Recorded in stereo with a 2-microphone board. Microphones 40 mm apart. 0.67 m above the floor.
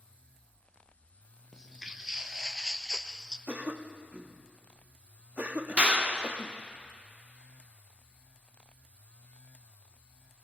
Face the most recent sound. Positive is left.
turn(degrees=-35)  # may be behind; listen again after turning